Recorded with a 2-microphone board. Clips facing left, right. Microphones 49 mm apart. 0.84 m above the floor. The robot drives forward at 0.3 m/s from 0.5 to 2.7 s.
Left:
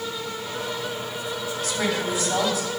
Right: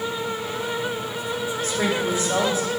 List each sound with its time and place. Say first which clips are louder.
1.6 s a woman speaking: right 2 dB; 45° right (ahead or behind), 3 m; by 2.7 s 40° right (ahead or behind), 3 m